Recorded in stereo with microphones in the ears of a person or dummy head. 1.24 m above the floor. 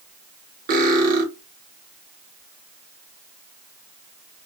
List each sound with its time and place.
0.7 s cutlery clinking: 40° right (ahead or behind), 1.0 m